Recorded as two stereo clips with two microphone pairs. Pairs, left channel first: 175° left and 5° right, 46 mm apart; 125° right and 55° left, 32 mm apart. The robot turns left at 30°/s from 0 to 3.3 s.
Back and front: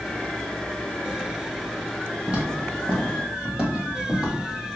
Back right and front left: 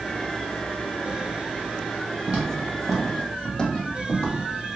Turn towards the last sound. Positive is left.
turn(degrees=-95)